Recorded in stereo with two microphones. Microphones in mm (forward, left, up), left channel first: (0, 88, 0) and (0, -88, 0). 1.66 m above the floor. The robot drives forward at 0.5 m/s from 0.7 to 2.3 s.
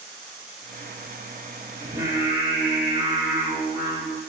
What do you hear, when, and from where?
1.8 s singing: 15° right (ahead or behind), 2.5 m